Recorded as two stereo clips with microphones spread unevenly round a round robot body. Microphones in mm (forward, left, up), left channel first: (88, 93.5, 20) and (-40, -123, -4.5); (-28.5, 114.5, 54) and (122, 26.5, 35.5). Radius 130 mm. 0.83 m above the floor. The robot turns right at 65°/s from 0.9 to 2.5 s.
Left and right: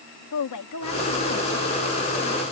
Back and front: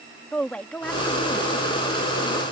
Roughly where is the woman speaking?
Ahead left.